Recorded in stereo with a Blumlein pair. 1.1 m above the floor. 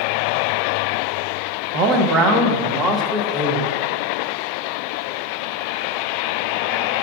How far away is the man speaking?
About 1.0 m.